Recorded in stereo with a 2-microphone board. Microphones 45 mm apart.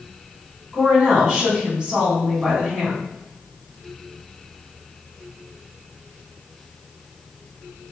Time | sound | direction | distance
0.7 | a woman speaking | 20° right (ahead or behind) | 1.1 m